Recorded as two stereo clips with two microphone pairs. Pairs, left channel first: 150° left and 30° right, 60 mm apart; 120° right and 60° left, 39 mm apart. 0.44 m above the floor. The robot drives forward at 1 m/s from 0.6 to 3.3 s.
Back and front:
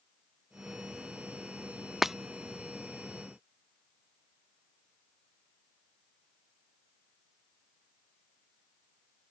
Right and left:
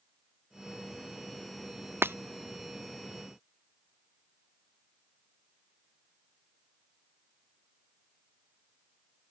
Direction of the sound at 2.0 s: 55° left.